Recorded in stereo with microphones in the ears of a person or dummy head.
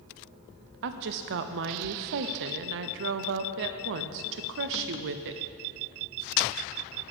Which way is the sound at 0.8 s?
55° right (ahead or behind).